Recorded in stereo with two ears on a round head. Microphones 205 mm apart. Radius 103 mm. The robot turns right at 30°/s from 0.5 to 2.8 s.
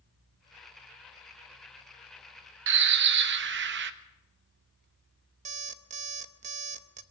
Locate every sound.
2.7 s a bird: 55° right (ahead or behind), 1.0 m; by 3.9 s 50° right (ahead or behind), 1.0 m
5.5 s an alarm clock: 30° right (ahead or behind), 0.7 m